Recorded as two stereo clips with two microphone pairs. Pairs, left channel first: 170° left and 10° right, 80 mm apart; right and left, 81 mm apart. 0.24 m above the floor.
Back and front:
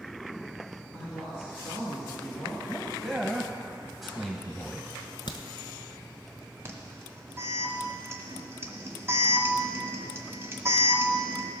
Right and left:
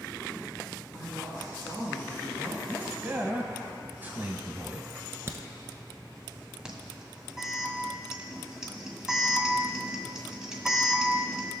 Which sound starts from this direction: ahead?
An alarm, at 6.7 s.